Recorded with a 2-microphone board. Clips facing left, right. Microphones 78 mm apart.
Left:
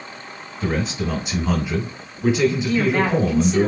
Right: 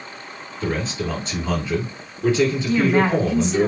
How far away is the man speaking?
About 2.0 m.